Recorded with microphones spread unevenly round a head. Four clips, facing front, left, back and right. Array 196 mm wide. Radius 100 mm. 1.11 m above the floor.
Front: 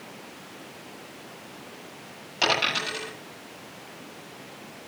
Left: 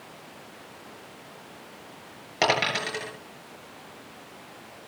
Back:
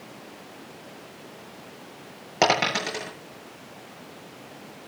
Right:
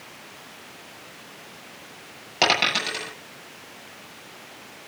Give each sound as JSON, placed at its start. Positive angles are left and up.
{"t": 2.4, "sound": "a dropped coin", "azimuth_deg": -175, "distance_m": 7.5}